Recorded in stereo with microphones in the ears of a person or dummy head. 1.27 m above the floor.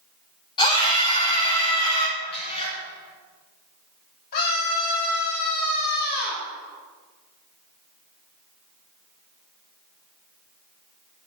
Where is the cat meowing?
30° left (ahead or behind), 4 m.